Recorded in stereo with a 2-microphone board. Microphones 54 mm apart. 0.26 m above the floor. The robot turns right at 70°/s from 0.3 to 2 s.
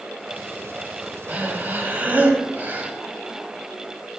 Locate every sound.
1.3 s breathing: 115° right, 0.9 m; by 2.9 s 65° right, 0.9 m